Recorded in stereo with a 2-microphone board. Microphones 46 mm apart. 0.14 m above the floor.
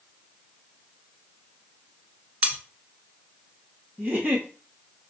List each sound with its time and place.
2.4 s cutlery clinking: 35° right (ahead or behind), 1.0 m
4.0 s a giggle: 40° right (ahead or behind), 2 m